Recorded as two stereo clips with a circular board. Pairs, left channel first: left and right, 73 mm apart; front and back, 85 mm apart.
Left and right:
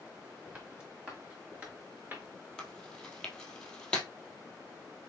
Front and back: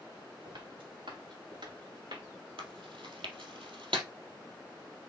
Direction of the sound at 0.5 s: 165° right.